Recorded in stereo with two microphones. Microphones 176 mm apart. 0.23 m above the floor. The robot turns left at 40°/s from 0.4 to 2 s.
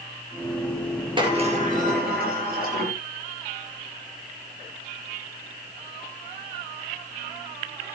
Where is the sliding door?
30° right, 5.5 m; by 2.9 s 60° right, 5.5 m.